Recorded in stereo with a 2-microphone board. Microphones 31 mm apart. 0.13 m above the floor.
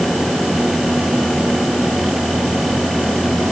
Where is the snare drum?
I don't hear a snare drum.